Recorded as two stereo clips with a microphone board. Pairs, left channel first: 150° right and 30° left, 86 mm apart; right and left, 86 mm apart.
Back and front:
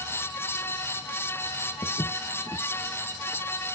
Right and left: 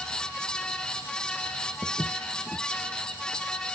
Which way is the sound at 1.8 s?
150° left.